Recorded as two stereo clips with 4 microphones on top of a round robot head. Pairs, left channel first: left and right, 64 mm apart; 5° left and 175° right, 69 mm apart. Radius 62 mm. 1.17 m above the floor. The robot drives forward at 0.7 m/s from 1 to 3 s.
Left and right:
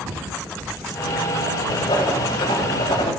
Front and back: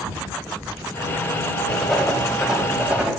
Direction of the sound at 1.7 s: 90° left.